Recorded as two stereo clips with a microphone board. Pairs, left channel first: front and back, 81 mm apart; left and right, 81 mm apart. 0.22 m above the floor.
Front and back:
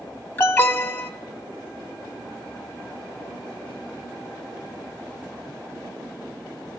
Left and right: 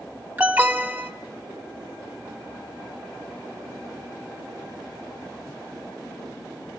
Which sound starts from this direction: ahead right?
An alarm, at 0.4 s.